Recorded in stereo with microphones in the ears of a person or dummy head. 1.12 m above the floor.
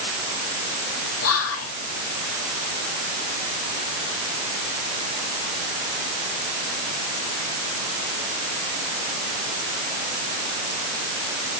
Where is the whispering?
80° left, 2.5 m.